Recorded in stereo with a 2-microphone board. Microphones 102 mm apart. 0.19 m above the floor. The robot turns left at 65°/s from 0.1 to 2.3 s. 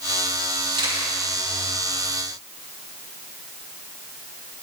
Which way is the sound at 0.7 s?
55° right (ahead or behind).